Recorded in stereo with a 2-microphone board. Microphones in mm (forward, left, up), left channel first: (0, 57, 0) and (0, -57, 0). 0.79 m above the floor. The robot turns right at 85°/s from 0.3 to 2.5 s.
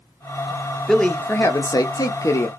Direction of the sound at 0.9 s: Straight ahead.